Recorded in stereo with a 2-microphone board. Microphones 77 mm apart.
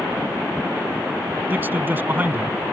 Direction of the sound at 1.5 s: 25° right (ahead or behind).